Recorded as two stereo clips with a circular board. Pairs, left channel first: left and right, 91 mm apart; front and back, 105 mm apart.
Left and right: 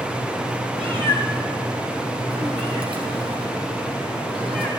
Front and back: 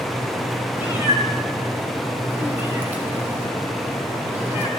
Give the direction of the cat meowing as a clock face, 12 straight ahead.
4 o'clock.